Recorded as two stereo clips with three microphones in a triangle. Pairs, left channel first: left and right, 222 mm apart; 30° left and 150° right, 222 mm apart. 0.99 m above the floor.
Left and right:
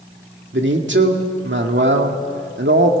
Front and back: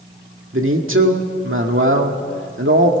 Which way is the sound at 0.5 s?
125° right.